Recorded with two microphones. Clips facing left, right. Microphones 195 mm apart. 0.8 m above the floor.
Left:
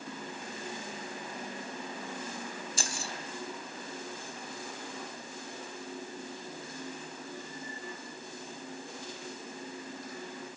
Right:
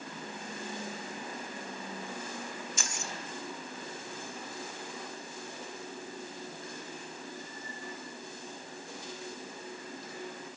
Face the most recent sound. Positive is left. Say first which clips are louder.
# left 2 dB
turn(degrees=35)  # may be behind; listen again after turning